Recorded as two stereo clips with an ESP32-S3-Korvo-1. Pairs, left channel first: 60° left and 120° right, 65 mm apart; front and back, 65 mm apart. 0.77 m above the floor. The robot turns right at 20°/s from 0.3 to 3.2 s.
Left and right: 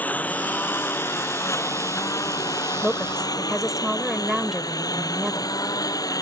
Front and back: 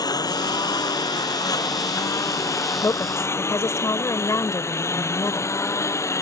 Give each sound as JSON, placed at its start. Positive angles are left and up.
{"t": 0.0, "sound": "a lawn mower", "azimuth_deg": -5}
{"t": 2.8, "sound": "a woman speaking", "azimuth_deg": -40}